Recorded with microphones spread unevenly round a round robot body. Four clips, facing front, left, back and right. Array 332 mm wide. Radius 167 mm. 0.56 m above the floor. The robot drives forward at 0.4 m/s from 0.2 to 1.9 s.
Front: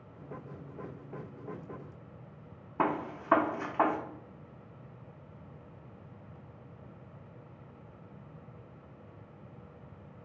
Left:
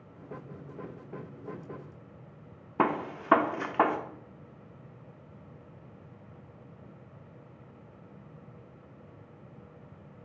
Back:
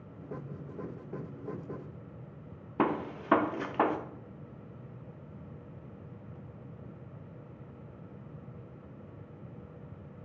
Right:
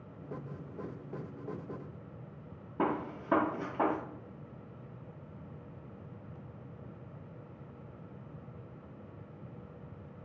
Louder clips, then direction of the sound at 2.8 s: Left 4 dB, back 1 dB; 95° left.